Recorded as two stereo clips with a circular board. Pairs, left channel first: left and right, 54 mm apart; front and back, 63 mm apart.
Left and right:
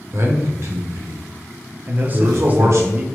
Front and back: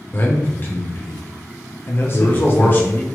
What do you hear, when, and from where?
0.1 s a man speaking: 55° right, 0.8 m
1.9 s a man speaking: 45° right, 0.6 m